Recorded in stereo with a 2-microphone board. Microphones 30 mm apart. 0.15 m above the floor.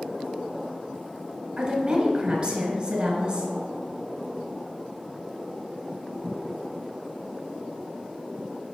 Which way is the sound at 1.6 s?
25° right (ahead or behind).